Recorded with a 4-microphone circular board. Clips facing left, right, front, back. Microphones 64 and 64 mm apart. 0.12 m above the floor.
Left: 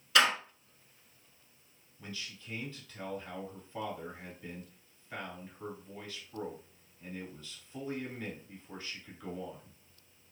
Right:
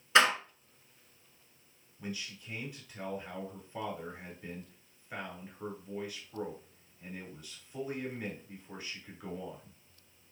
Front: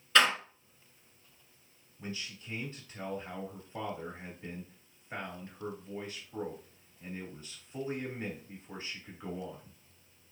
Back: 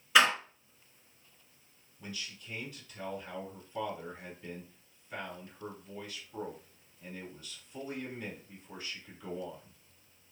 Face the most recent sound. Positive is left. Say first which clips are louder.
# right 4 dB, front 2 dB
turn(degrees=-25)